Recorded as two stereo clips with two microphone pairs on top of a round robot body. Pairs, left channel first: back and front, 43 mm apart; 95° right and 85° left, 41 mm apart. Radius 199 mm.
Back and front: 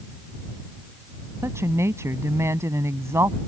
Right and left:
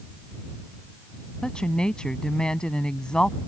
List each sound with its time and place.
1.4 s a woman speaking: 25° right